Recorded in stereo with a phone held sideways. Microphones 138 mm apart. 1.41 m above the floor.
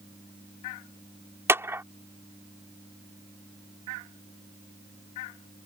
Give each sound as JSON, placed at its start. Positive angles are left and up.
{"t": 1.5, "sound": "a clap", "side_deg": -20}